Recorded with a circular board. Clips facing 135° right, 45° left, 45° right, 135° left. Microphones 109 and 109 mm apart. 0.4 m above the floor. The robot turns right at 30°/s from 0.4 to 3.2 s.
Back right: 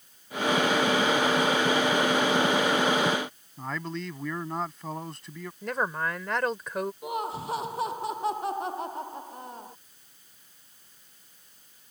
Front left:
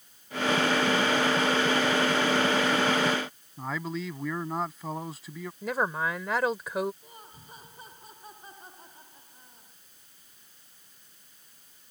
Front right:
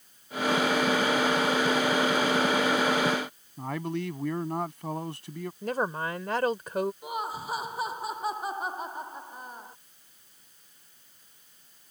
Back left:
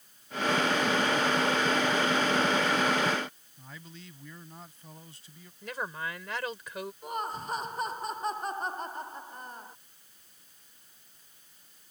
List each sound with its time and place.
3.6 s a man speaking: 40° right
5.6 s a woman speaking: 40° right
7.0 s laughter: 130° right